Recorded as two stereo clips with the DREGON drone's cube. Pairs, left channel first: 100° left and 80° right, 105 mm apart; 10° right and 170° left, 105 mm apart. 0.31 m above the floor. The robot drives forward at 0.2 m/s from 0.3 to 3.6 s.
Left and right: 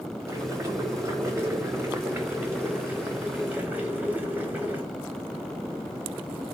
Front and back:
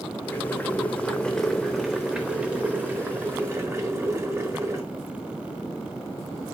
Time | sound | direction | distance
0.3 | boiling | 60° right | 0.8 m